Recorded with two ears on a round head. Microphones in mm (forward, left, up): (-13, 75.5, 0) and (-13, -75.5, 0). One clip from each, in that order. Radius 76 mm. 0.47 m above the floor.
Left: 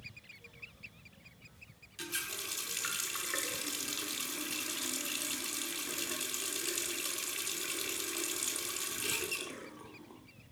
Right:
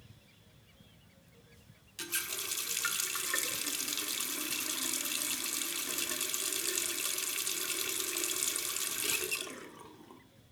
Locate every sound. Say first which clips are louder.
2.0 s a running tap: right 1 dB; 20° right (ahead or behind), 0.5 m